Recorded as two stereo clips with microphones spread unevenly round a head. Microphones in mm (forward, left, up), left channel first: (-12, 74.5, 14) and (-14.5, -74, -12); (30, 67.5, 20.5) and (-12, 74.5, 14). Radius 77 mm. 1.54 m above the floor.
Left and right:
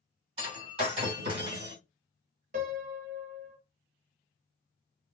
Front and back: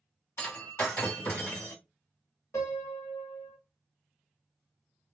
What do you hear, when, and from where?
0.4 s breaking glass: 35° right, 2.5 m
2.5 s a piano: 50° right, 1.0 m